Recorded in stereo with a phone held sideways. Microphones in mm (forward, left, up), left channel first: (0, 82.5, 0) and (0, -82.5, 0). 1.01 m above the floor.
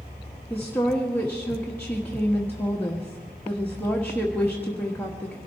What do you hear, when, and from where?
0.5 s a woman speaking: 10° left (ahead or behind), 1.3 m